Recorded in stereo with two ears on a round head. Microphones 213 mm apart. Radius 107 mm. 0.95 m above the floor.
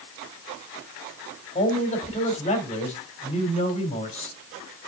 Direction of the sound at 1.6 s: 25° left (ahead or behind).